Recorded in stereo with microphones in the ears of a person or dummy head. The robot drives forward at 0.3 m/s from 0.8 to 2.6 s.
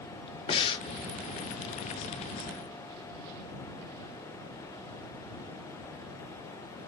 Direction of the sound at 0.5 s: 30° left (ahead or behind).